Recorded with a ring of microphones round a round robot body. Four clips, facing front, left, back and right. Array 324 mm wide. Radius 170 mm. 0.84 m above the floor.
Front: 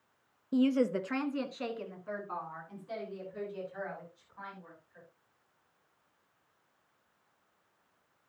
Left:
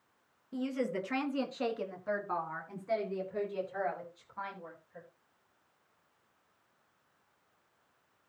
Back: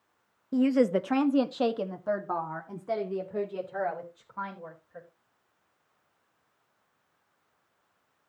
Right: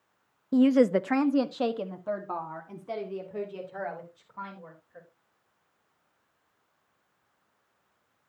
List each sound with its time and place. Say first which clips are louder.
0.5 s a woman speaking: right 14 dB, back 4 dB; 95° right, 0.8 m; by 5.1 s 170° right, 4.5 m